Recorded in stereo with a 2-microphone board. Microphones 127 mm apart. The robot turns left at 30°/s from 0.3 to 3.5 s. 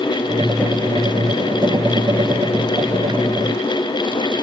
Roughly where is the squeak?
I don't hear a squeak.